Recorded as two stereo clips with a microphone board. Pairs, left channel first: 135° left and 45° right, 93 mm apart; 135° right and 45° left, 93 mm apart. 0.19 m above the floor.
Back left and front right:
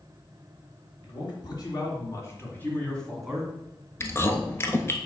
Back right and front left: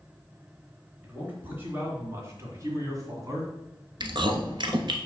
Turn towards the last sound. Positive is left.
turn(degrees=75)